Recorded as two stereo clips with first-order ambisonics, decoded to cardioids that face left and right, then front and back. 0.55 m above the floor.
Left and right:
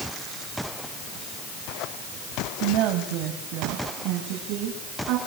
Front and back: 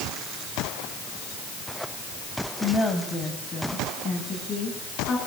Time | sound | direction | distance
2.6 | a woman speaking | 75° right | 3.5 m